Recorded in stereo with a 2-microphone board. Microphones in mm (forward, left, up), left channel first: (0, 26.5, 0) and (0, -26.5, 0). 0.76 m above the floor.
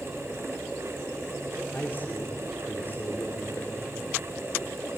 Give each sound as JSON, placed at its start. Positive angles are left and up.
{"t": 1.7, "sound": "a man speaking", "side_deg": 40, "distance_m": 2.5}